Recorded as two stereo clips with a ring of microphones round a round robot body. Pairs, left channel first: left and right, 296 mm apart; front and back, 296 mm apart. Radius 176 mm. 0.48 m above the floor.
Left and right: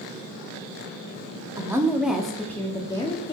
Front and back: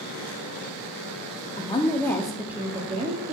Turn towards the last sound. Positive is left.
turn(degrees=145)